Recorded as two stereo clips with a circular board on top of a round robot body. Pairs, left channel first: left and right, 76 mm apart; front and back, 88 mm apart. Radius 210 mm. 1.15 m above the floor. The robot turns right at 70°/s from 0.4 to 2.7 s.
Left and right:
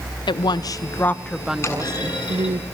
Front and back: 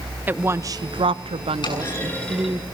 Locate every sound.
0.3 s a woman speaking: 110° left, 0.8 m; by 2.6 s 95° right, 0.8 m
1.6 s a clunk: 35° left, 7.5 m; by 2.5 s 100° left, 7.5 m